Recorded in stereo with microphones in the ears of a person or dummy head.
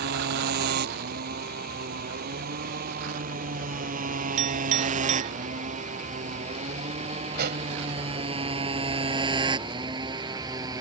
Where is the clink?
35° right (ahead or behind).